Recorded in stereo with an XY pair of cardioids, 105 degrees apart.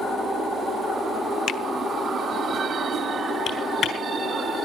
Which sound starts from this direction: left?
A finger snap, at 1.5 s.